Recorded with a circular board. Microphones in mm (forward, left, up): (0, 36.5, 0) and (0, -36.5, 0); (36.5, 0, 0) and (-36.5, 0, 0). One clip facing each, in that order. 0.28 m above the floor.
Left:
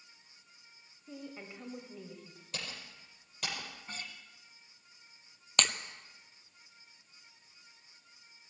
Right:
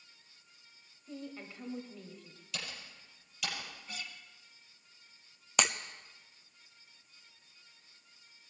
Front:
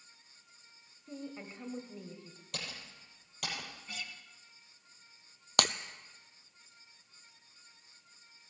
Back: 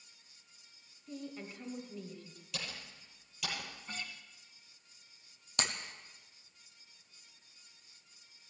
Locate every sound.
1.1 s a woman speaking: 25° left, 1.3 m
2.5 s typing on a keyboard: 40° left, 6.5 m
3.9 s a guitar: 130° left, 3 m
5.6 s breaking glass: 10° right, 0.7 m